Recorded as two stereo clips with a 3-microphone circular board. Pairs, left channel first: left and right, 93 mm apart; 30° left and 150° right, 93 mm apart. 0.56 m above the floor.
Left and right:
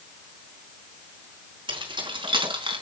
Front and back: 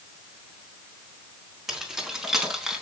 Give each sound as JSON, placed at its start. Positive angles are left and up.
{"t": 1.7, "sound": "keys jangling", "azimuth_deg": -65, "distance_m": 4.0}